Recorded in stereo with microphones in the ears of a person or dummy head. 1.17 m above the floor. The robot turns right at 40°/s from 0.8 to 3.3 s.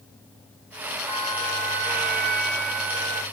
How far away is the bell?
About 2.5 m.